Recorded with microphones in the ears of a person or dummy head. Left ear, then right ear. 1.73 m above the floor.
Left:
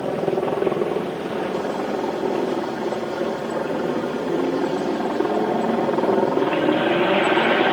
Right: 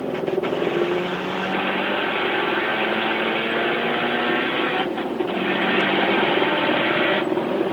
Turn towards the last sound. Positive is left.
turn(degrees=30)  # may be behind; listen again after turning